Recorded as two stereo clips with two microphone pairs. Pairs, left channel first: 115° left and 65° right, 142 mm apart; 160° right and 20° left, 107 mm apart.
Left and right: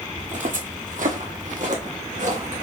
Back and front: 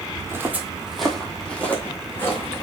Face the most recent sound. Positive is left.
turn(degrees=-95)